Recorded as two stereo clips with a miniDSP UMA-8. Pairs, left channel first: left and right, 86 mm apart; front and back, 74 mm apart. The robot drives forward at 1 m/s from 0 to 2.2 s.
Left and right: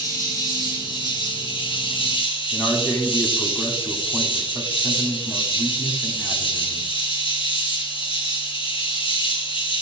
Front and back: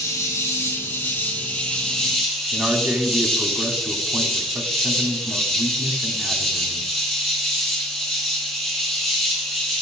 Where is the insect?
45° left, 3 m; by 9.8 s 90° left, 2.5 m.